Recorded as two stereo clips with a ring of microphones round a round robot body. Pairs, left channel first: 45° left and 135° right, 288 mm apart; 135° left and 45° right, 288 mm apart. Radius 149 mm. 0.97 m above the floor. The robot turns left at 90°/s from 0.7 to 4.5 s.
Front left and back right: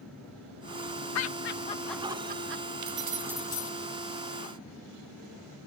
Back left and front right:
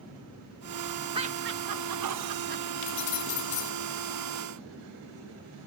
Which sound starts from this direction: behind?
Keys jangling, at 2.8 s.